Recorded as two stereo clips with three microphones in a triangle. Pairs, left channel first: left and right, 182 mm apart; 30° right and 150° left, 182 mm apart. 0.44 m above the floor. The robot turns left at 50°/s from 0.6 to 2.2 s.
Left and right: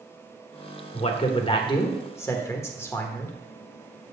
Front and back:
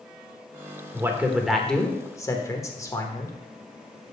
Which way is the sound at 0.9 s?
90° left.